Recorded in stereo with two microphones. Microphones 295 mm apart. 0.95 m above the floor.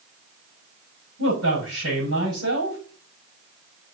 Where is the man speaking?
55° right (ahead or behind), 6.5 m.